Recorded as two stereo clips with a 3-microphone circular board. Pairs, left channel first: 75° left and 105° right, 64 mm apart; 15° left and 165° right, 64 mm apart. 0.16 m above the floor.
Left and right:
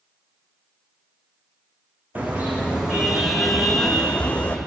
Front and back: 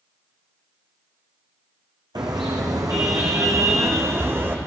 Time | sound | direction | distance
2.1 | a car horn | 170° right | 4.5 m